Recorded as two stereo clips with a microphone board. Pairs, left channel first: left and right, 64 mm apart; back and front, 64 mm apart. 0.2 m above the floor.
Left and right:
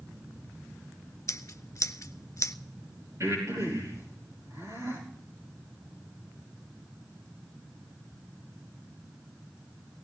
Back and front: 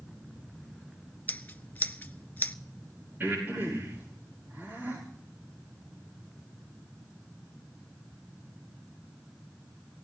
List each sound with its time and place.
1.3 s scissors: 120° left, 0.5 m
3.2 s breathing: 55° right, 9.5 m